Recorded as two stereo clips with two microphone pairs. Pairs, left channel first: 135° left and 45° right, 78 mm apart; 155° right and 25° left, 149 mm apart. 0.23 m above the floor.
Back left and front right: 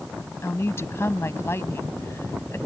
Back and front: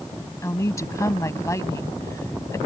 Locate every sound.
0.4 s a woman speaking: 150° left